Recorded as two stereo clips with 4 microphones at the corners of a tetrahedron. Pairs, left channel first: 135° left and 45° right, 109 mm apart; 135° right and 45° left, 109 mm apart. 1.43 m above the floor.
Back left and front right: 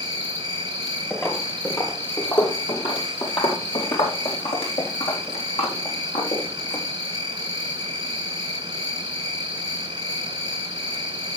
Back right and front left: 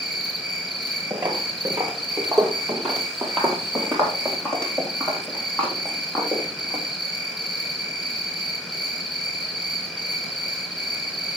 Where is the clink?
I don't hear a clink.